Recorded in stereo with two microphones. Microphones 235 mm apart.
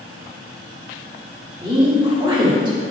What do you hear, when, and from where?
1.6 s a woman speaking: 20° right (ahead or behind), 1.8 m